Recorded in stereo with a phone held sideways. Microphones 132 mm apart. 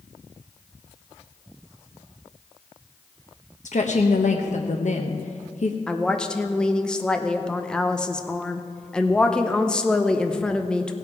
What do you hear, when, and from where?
3.6 s a woman speaking: 65° left (ahead or behind), 0.9 m
5.9 s a woman speaking: 5° left (ahead or behind), 0.8 m